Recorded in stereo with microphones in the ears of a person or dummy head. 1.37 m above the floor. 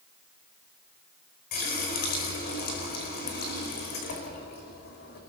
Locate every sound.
1.5 s a running tap: 55° left (ahead or behind), 5 m